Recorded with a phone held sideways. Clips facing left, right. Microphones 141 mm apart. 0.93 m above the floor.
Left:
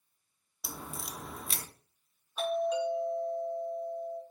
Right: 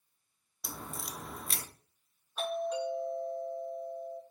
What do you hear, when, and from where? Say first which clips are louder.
0.6 s a crack: even; 5° left (ahead or behind), 0.8 m
2.4 s a doorbell: left 4 dB; 5° left (ahead or behind), 3 m